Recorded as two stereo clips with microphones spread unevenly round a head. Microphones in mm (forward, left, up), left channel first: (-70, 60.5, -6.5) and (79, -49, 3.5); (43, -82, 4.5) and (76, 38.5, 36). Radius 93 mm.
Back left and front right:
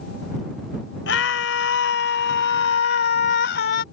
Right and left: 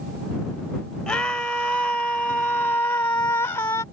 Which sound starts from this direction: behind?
A scream, at 1.1 s.